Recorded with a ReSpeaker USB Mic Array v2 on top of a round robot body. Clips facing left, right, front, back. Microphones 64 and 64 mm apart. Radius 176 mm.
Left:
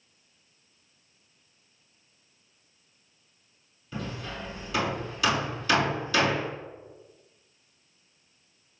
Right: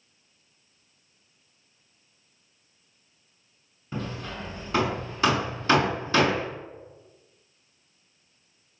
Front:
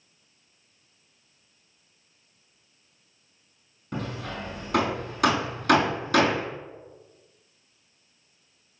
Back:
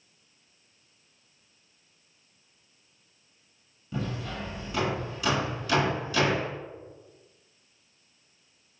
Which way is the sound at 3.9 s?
35° right.